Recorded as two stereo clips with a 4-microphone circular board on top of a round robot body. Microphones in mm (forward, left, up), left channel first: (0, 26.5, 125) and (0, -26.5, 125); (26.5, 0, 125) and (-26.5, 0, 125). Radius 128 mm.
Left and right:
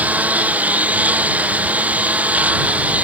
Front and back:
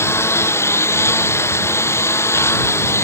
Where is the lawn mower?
30° right.